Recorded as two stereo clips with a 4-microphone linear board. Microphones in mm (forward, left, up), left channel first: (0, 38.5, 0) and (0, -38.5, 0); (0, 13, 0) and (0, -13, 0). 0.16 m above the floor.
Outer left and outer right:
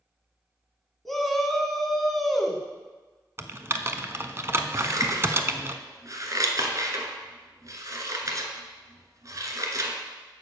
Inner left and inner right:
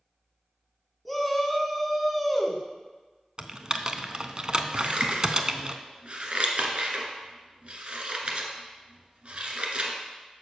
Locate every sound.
1.1 s a shout: centre (ahead or behind), 1.1 m
3.4 s typing on a keyboard: 35° right (ahead or behind), 0.5 m
4.8 s scissors: 45° right (ahead or behind), 1.1 m